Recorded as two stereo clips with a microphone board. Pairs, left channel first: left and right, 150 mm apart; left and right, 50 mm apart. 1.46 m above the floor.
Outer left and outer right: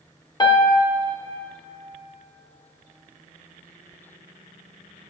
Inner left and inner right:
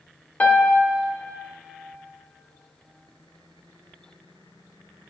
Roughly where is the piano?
Left.